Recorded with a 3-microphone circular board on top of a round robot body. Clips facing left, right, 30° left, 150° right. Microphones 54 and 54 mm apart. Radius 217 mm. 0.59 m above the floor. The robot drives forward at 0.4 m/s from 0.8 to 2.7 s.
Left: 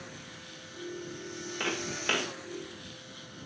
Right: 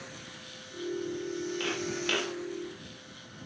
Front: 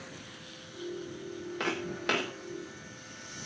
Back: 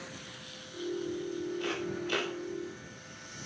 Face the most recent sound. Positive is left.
turn(degrees=20)